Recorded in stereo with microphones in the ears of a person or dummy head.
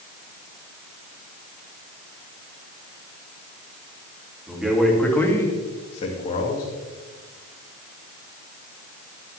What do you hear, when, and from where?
4.5 s a man speaking: 10° right (ahead or behind), 3 m; by 6.7 s 40° left (ahead or behind), 3 m